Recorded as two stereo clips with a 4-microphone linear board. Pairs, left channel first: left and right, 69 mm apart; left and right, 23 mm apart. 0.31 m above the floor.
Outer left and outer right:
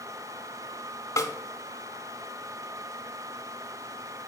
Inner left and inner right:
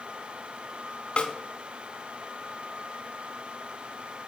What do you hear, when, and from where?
1.2 s a snare drum: 45° left (ahead or behind), 1.0 m